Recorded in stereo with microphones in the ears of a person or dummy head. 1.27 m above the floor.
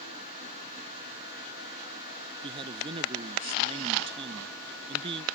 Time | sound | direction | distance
2.4 | a man speaking | 25° right (ahead or behind) | ?